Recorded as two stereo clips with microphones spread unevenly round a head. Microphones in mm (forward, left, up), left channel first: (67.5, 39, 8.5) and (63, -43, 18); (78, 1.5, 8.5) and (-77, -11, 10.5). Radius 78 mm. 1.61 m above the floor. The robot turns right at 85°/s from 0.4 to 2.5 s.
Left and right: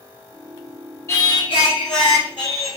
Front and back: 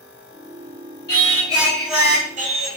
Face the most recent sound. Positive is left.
turn(degrees=150)